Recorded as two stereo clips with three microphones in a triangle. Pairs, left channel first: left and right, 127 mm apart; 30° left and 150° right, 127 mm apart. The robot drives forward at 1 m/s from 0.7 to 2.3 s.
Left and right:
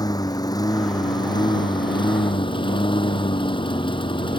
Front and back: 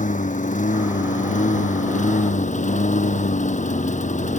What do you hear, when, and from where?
0.0 s a lawn mower: 30° left; by 4.4 s 40° left